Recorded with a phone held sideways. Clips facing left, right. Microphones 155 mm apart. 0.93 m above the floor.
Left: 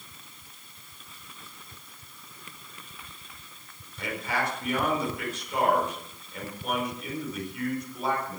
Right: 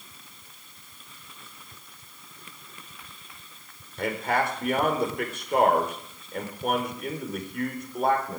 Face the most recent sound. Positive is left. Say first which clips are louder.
# right 5 dB
turn(degrees=-60)  # may be behind; listen again after turning